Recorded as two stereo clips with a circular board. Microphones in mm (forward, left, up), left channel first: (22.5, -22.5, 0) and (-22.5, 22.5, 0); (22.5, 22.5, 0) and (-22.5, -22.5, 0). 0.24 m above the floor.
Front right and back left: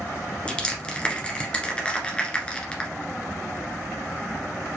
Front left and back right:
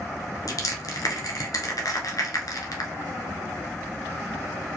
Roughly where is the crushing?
Ahead left.